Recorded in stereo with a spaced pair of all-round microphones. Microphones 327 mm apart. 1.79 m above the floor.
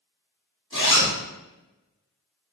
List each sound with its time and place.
0.7 s a zipper: 35° right (ahead or behind), 1.6 m